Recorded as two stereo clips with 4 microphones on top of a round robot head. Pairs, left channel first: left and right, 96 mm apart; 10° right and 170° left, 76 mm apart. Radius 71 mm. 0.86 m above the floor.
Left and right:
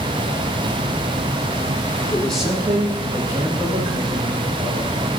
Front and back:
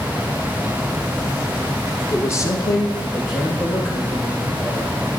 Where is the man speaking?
35° left, 0.8 m; by 5.1 s 40° right, 3.5 m.